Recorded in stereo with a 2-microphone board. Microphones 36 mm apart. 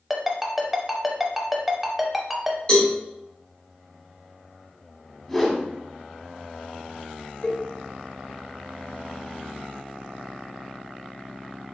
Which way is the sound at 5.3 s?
10° left (ahead or behind).